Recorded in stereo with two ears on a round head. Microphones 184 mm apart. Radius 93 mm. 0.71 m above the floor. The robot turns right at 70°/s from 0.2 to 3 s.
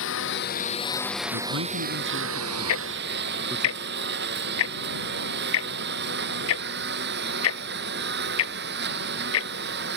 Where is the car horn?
No car horn in this recording.